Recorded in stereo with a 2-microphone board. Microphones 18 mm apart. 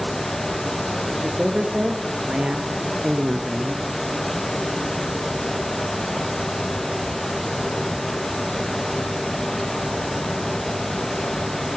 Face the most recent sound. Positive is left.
turn(degrees=-50)  # may be behind; listen again after turning